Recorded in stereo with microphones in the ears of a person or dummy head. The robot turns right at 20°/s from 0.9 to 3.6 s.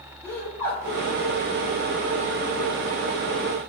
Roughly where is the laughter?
Centre.